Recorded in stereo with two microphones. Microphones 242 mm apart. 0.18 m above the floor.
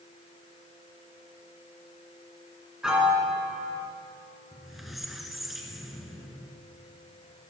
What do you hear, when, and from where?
2.8 s a piano: 5° right (ahead or behind), 1.8 m
4.5 s a squeak: centre (ahead or behind), 1.0 m